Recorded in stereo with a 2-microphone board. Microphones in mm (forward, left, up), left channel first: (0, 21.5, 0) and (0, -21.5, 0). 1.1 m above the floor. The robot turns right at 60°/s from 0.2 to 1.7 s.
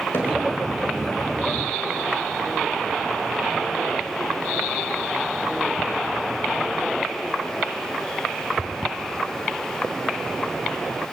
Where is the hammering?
60° left (ahead or behind), 5.5 m; by 0.3 s 65° left (ahead or behind), 5.5 m.